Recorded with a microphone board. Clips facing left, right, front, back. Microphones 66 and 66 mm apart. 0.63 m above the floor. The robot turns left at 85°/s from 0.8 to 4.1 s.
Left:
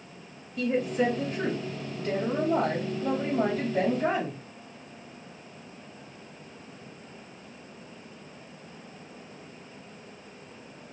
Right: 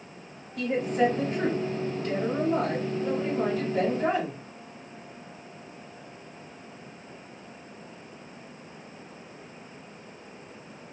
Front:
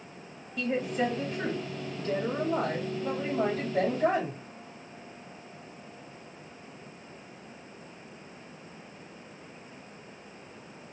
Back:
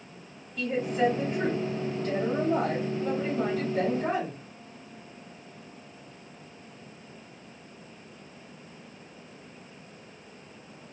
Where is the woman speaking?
85° right, 1.4 m; by 4.4 s 5° right, 1.4 m.